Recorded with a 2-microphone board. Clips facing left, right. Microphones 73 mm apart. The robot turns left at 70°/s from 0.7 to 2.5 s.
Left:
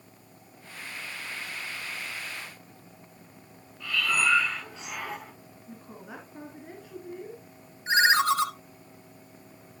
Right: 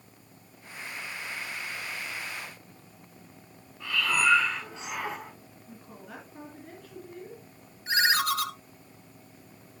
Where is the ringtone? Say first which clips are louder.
Left 4 dB; 25° left (ahead or behind), 0.9 m.